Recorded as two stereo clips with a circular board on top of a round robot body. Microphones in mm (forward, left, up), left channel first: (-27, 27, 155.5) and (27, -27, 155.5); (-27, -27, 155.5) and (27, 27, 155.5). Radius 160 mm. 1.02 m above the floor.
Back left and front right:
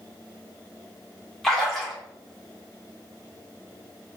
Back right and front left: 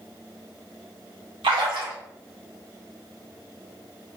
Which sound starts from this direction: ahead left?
A splash, at 1.4 s.